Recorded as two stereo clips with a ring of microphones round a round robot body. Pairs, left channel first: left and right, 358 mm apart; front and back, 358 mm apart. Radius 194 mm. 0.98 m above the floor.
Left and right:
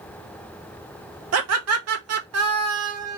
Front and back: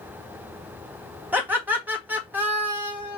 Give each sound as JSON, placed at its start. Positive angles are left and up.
{"t": 1.3, "sound": "laughter", "azimuth_deg": -95, "distance_m": 1.1}